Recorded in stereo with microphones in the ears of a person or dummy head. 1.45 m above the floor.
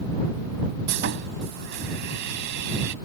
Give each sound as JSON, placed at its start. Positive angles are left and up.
{"t": 0.9, "sound": "sawing", "side_deg": -60}